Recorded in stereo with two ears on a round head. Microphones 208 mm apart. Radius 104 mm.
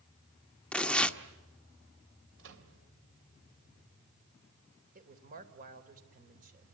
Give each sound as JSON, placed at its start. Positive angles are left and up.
{"t": 0.7, "sound": "tearing paper", "side_deg": 5, "distance_m": 1.1}
{"t": 2.4, "sound": "a microwave", "side_deg": -55, "distance_m": 3.5}
{"t": 5.0, "sound": "a woman speaking", "side_deg": -40, "distance_m": 3.0}